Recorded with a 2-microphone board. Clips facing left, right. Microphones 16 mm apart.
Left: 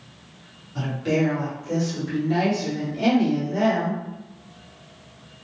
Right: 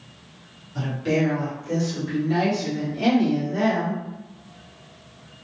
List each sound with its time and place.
0.8 s a woman speaking: centre (ahead or behind), 1.4 m; by 4.0 s 15° right (ahead or behind), 1.9 m